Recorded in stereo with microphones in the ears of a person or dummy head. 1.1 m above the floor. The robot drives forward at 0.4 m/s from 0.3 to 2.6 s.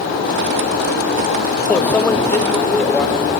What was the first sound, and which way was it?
A microwave, 5° left (ahead or behind).